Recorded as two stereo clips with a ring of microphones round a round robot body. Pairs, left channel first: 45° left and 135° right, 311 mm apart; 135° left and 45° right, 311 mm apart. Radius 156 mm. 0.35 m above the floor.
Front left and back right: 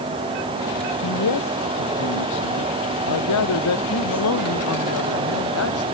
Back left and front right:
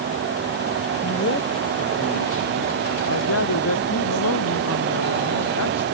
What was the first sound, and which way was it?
A man speaking, 80° left.